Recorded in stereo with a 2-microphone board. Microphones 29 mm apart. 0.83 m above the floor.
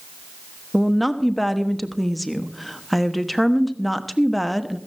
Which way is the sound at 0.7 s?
5° left (ahead or behind).